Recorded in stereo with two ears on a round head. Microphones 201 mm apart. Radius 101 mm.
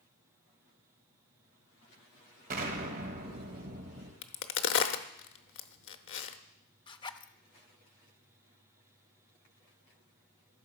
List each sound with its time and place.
2.5 s an explosion: 40° right (ahead or behind), 1.6 m
4.2 s a crack: 60° left (ahead or behind), 0.8 m
6.9 s a zipper: 20° left (ahead or behind), 0.5 m